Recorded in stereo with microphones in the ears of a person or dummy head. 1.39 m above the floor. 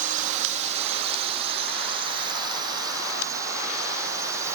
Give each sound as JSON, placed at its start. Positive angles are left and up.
{"t": 0.0, "sound": "a drone", "side_deg": -45}